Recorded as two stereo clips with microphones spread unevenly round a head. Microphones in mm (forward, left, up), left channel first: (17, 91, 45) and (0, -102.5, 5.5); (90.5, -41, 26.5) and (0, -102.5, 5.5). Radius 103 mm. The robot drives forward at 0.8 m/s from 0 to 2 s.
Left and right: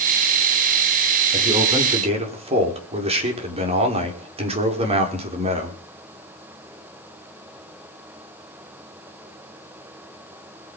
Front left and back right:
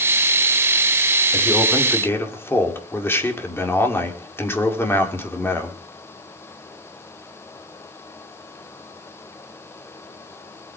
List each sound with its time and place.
1.3 s a man speaking: 30° right, 5 m; by 5.8 s 35° right, 4.5 m